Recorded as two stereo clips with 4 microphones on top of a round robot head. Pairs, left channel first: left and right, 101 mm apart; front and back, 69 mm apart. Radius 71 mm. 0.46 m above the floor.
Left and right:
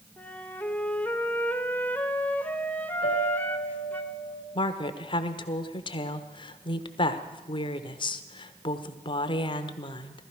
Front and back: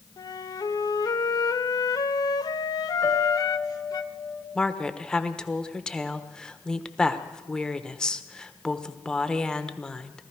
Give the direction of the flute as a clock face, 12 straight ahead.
11 o'clock.